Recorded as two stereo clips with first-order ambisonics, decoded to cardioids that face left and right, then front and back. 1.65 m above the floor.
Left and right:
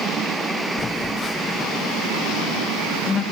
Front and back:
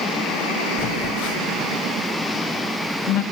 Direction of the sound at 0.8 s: 25° left.